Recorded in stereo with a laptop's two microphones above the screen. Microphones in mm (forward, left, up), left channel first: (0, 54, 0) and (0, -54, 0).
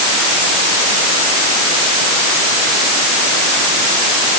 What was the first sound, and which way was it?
Only background noise.